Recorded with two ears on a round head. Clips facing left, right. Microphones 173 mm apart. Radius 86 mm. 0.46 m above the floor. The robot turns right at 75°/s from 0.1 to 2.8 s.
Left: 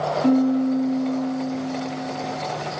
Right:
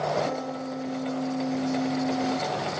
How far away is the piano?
About 0.9 m.